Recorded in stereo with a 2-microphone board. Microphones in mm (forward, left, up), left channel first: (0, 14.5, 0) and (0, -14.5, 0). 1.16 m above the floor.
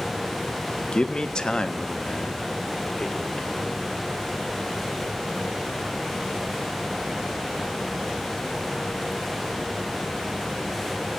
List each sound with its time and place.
0.9 s a man speaking: 30° left (ahead or behind), 1.2 m; by 3.8 s 20° left (ahead or behind), 4.5 m